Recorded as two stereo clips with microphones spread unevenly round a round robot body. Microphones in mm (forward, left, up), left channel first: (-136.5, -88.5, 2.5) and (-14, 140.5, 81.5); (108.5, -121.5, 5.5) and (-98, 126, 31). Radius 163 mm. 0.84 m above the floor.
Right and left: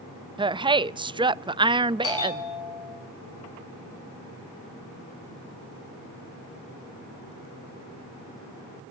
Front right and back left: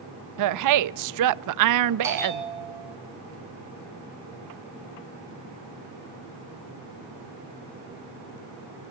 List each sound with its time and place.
0.4 s a woman speaking: 145° left, 0.8 m
2.0 s a bell: 150° right, 7 m